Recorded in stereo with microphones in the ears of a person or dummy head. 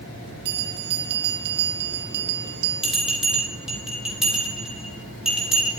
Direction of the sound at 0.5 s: 60° right (ahead or behind).